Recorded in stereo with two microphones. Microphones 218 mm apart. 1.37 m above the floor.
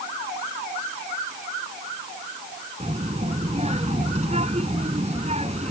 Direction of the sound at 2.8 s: 30° right (ahead or behind).